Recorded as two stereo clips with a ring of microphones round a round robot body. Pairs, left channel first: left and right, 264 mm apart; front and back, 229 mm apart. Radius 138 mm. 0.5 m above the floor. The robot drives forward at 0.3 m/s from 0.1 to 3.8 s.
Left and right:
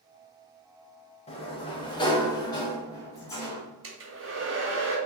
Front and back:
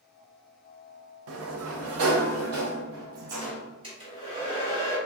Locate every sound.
1.3 s a sliding door: 160° left, 0.6 m; by 3.6 s 170° left, 1.3 m
3.8 s a hair dryer: 115° right, 1.5 m